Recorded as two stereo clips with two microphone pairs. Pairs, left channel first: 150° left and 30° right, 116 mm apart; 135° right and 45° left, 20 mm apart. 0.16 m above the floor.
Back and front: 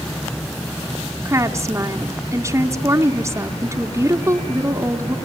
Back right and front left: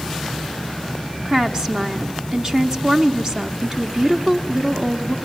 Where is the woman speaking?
20° left, 1.2 m.